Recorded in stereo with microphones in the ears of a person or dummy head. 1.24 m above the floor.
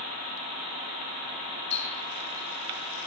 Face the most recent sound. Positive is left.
turn(degrees=30)  # may be behind; listen again after turning